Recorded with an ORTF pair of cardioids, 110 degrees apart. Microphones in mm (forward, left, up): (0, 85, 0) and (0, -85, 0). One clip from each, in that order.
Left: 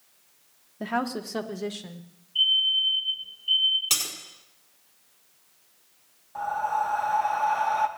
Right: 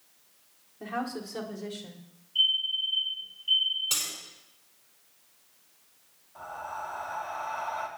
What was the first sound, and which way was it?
A woman speaking, 50° left.